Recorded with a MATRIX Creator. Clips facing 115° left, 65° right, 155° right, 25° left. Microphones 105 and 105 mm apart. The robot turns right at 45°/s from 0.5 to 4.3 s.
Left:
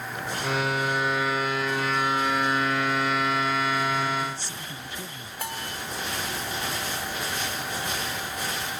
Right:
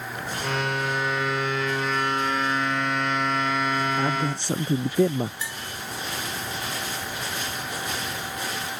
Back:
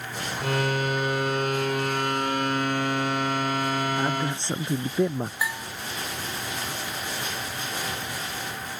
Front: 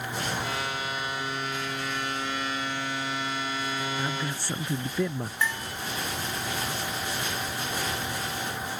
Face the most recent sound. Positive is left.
turn(degrees=125)